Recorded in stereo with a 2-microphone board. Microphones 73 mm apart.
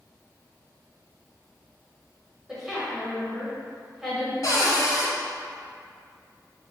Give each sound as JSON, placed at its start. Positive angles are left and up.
{"t": 2.5, "sound": "a woman speaking", "side_deg": -5, "distance_m": 1.0}
{"t": 4.4, "sound": "a cupboard door", "side_deg": 55, "distance_m": 0.7}